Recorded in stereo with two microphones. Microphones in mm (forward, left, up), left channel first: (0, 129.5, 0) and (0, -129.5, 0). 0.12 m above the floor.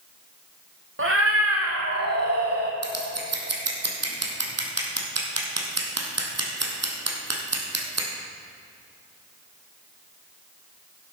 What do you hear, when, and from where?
1.0 s a cat meowing: 55° right (ahead or behind), 1.2 m; by 2.7 s 65° right (ahead or behind), 1.4 m
2.8 s scissors: 75° right (ahead or behind), 1.7 m